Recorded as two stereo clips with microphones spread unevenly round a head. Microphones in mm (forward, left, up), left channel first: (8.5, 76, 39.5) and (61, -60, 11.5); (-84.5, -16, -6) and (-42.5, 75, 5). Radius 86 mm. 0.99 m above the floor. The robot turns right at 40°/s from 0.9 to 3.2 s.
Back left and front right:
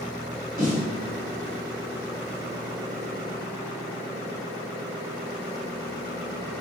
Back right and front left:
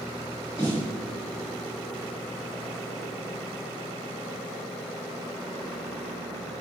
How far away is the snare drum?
About 1.3 m.